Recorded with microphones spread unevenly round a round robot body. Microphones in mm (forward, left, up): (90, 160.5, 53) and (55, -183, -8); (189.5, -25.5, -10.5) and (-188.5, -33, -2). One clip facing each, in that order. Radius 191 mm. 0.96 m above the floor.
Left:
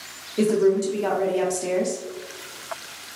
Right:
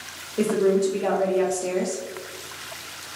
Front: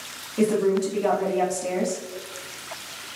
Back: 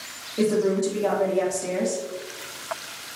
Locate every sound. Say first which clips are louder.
0.4 s a woman speaking: left 1 dB, front 1 dB; 10° left, 0.7 m